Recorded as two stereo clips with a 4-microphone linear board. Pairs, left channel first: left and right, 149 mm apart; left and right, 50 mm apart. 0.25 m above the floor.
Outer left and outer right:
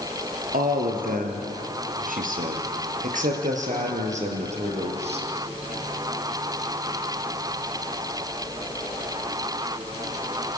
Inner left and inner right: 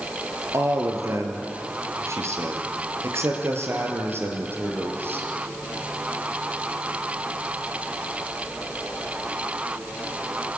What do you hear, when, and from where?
0.5 s a man speaking: 75° right (ahead or behind), 4 m; by 5.3 s 45° right (ahead or behind), 5 m